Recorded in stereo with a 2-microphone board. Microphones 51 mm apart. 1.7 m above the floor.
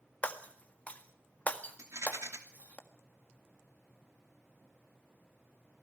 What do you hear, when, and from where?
0.2 s breaking glass: 30° left (ahead or behind), 1.7 m
1.8 s a rattle: 75° right (ahead or behind), 2.5 m